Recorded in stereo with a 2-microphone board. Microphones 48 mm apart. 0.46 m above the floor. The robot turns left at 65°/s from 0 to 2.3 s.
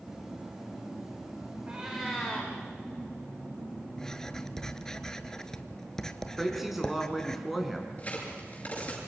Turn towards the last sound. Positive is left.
turn(degrees=30)  # may be behind; listen again after turning